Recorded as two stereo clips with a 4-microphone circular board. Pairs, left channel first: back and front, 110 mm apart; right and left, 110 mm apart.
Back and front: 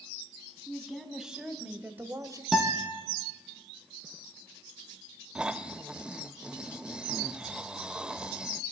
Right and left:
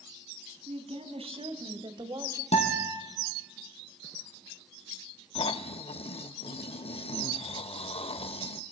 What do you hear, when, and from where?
0.7 s a woman speaking: 90° left, 3 m; by 2.4 s 45° left, 1.3 m
2.5 s a guitar: 90° right, 3.5 m
5.3 s snoring: 80° right, 0.5 m